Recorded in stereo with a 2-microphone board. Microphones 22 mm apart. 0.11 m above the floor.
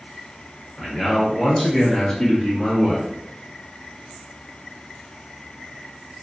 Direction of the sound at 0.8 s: 5° left (ahead or behind).